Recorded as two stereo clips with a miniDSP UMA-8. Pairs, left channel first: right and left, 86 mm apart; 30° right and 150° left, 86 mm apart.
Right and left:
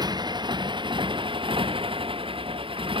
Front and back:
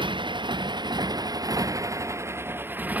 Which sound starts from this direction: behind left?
A motorcycle, at 0.0 s.